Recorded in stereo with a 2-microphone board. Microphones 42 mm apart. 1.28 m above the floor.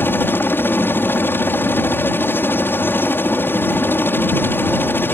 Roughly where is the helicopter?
Left.